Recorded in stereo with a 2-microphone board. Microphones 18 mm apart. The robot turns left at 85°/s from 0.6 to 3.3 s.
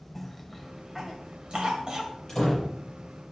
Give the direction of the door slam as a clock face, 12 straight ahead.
6 o'clock.